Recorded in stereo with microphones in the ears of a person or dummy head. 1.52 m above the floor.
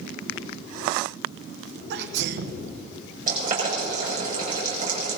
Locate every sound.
1.9 s a sneeze: 60° right (ahead or behind), 0.8 m
3.3 s boiling: 40° right (ahead or behind), 5.5 m